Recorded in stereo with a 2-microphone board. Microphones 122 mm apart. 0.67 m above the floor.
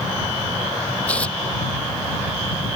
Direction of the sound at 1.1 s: 10° left (ahead or behind).